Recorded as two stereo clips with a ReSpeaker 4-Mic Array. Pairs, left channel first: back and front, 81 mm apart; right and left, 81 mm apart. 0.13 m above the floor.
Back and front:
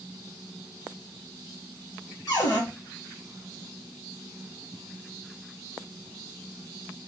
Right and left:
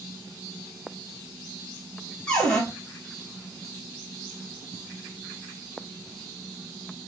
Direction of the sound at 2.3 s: 165° right.